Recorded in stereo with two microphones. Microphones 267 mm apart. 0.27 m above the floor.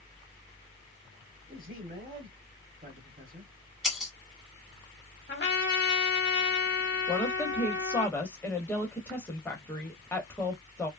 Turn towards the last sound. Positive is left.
turn(degrees=10)  # may be behind; listen again after turning